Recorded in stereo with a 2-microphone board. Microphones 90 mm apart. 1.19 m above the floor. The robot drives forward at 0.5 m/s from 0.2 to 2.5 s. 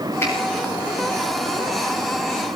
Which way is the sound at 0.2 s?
30° left (ahead or behind).